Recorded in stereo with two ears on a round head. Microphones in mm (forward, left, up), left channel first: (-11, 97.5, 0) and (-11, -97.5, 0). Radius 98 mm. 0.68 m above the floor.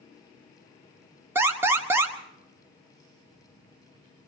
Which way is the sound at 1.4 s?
10° right (ahead or behind).